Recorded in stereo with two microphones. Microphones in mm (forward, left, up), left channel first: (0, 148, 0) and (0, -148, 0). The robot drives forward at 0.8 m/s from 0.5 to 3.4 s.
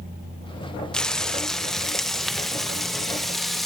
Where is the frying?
5° left (ahead or behind), 1.3 m; by 3.7 s centre (ahead or behind), 3.5 m.